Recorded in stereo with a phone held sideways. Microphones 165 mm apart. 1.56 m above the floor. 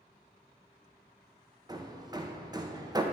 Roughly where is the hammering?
Right.